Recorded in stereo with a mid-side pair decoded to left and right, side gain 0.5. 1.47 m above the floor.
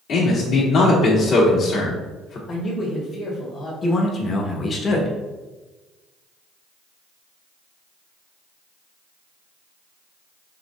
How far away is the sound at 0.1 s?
About 2 m.